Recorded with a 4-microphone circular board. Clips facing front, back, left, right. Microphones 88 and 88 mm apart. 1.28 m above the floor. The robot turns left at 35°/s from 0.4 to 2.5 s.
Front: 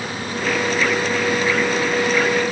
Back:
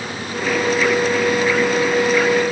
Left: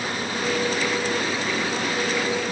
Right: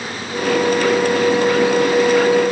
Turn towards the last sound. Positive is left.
No sound to turn to.